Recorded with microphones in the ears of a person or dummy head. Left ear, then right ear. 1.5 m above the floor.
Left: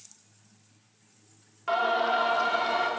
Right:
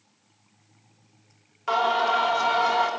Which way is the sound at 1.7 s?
10° right (ahead or behind).